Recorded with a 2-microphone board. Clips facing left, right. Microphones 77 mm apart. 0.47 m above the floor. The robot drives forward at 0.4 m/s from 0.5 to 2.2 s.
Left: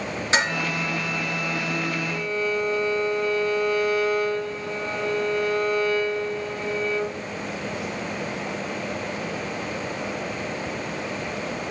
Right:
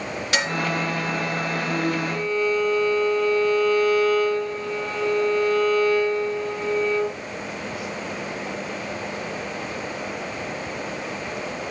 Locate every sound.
0.3 s dishes clattering: 30° left (ahead or behind), 4.5 m
2.1 s a violin: 15° left (ahead or behind), 8 m